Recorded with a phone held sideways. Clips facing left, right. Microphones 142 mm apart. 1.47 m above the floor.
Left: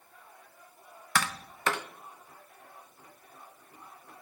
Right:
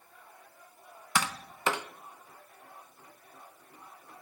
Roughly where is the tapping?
Centre.